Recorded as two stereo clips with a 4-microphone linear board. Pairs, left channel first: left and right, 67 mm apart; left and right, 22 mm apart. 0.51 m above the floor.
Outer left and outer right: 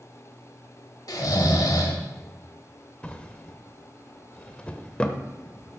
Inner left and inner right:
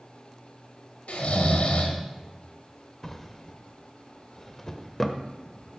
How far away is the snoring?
About 1.4 m.